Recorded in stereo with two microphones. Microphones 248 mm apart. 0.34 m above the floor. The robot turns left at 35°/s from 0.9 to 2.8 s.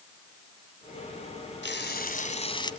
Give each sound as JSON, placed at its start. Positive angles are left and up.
{"t": 1.6, "sound": "frying", "azimuth_deg": 55, "distance_m": 1.8}